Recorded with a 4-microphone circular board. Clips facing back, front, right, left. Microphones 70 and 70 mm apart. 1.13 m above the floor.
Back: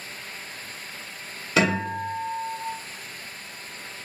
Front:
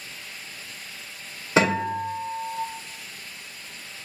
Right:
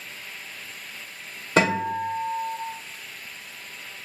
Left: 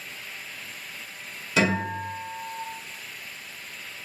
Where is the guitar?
55° right, 1.3 m.